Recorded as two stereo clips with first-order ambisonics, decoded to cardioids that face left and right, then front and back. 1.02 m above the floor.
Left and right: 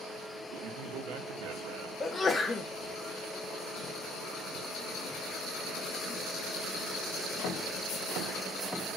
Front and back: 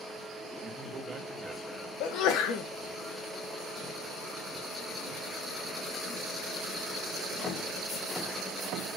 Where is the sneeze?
15° left, 0.9 m.